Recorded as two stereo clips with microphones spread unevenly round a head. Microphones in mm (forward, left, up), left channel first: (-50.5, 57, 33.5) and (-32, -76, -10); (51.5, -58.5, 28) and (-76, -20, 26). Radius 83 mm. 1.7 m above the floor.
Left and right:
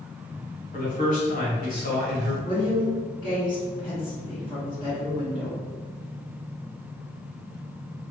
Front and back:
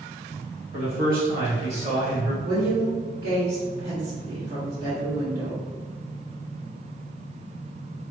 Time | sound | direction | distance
0.7 | a man speaking | 125° left | 1.7 m
2.4 | a woman speaking | 140° left | 1.8 m